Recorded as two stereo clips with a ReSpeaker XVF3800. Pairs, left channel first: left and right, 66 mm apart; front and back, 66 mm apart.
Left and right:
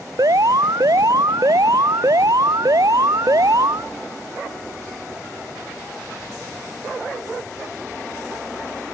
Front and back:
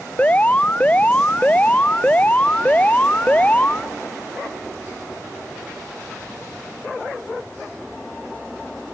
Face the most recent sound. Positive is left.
turn(degrees=-65)